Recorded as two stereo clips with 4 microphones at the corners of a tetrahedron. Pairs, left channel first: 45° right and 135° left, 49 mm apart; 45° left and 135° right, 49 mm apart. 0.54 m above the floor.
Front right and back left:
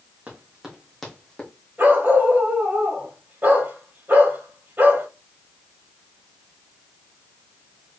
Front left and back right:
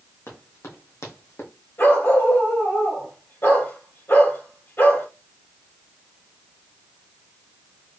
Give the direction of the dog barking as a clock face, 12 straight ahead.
9 o'clock.